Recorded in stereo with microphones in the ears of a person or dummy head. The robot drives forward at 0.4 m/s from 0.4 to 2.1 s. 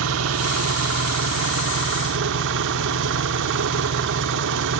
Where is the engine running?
75° right (ahead or behind), 1.5 m; by 4.8 s 65° right (ahead or behind), 1.6 m.